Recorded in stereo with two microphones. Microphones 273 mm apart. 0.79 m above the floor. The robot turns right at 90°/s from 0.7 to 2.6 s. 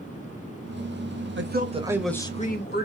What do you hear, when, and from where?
1.4 s a man speaking: 60° right, 0.7 m; by 2.9 s 50° left, 0.7 m